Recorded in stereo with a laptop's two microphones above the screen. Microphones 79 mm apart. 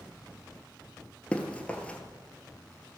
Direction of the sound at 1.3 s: 15° left (ahead or behind).